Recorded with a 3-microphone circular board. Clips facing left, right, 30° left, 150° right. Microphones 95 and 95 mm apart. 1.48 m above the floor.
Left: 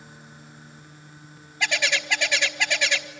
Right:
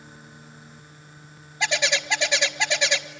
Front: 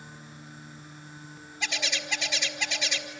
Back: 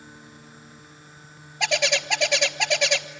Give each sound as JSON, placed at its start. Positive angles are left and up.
{"t": 1.6, "sound": "a bird", "azimuth_deg": -160, "distance_m": 1.2}